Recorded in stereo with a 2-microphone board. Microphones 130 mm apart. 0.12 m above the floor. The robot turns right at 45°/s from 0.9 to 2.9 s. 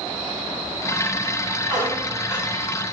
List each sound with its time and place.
1.7 s a squeak: 20° right, 3.5 m; by 2.5 s 15° left, 3.5 m